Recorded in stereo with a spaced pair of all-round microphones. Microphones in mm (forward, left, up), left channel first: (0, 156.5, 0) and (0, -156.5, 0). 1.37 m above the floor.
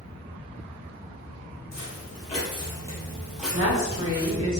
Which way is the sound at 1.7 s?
30° left (ahead or behind).